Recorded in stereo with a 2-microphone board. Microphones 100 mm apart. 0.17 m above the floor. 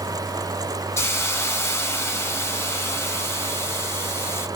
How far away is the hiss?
About 0.5 m.